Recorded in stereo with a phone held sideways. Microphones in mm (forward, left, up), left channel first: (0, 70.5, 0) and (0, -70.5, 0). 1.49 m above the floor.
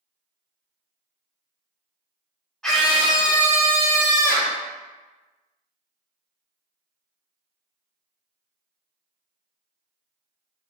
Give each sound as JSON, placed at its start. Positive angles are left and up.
{"t": 2.6, "sound": "a scream", "side_deg": 5, "distance_m": 1.4}